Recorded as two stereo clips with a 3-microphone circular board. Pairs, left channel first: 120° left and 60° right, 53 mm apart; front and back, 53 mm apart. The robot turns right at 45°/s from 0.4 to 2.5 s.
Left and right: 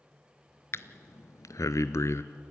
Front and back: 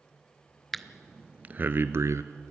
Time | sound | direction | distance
0.7 | breathing | 85° left | 0.7 m